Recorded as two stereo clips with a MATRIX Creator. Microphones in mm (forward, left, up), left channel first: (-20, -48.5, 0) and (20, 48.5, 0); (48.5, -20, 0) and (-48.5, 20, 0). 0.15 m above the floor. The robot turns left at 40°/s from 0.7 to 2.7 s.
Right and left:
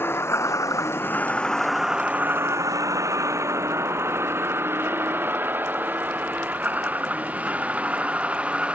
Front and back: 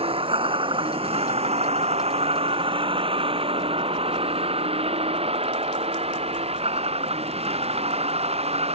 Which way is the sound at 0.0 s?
Straight behind.